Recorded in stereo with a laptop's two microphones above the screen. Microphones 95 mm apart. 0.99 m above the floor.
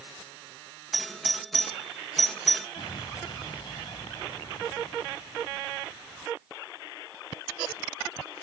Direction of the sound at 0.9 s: Centre (ahead or behind).